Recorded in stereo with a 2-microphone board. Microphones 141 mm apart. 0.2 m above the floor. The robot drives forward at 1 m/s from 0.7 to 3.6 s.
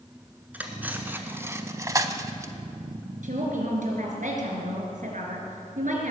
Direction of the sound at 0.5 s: 10° right (ahead or behind).